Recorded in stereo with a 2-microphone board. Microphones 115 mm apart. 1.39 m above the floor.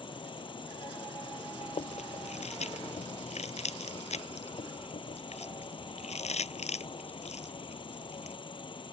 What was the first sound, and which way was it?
An insect, 45° left (ahead or behind).